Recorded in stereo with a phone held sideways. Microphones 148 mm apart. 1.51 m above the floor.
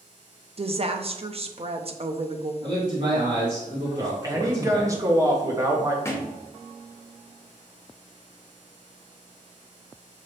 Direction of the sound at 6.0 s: 20° left (ahead or behind).